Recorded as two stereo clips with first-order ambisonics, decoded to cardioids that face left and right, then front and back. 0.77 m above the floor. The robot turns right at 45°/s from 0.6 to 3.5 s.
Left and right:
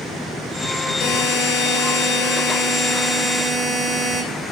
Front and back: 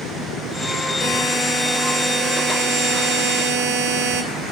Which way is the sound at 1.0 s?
70° left.